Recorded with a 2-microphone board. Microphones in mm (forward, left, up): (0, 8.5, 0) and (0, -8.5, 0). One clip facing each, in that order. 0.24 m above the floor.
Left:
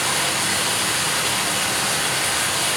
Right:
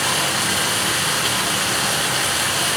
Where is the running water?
65° right (ahead or behind), 2.5 m.